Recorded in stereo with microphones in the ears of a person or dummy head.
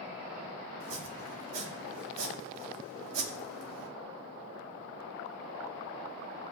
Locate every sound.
0.8 s chopping: 80° right, 2 m